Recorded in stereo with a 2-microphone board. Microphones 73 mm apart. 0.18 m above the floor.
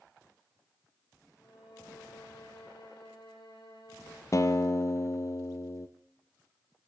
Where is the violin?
80° left, 8 m.